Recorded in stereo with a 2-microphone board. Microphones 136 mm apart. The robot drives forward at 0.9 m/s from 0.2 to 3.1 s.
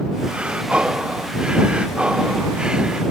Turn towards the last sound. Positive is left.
turn(degrees=-5)  # may be behind; listen again after turning